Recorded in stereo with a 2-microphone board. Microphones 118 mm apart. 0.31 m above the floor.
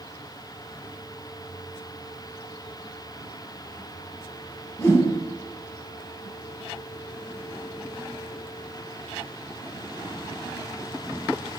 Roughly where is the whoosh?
Left.